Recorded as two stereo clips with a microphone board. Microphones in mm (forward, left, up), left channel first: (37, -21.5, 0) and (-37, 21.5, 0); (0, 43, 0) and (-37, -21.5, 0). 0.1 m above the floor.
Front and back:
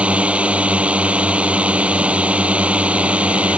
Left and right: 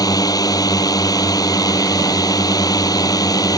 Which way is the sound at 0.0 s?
75° left.